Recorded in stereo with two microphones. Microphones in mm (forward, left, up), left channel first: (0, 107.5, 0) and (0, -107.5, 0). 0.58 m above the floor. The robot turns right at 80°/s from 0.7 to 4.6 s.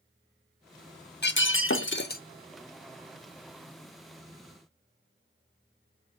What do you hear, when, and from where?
1.2 s breaking glass: 55° left, 0.7 m; by 2.2 s 135° left, 0.7 m